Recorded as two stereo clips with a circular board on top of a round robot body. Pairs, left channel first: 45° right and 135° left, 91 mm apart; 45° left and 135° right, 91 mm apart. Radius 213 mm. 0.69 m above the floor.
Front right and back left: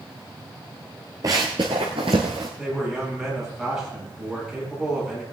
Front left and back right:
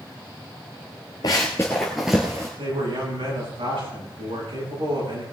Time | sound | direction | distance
1.2 | running footsteps | 85° left | 0.8 m
2.6 | a man speaking | 135° right | 8 m